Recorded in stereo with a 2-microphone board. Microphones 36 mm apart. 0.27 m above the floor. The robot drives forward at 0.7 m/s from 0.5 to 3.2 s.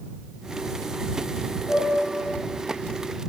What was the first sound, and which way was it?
A piano, 50° left (ahead or behind).